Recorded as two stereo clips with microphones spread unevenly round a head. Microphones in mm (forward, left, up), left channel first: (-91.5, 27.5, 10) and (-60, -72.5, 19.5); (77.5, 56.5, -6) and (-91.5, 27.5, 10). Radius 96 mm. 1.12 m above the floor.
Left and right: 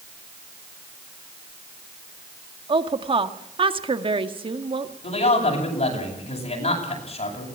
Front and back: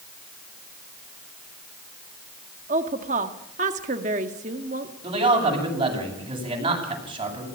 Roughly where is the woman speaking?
Right.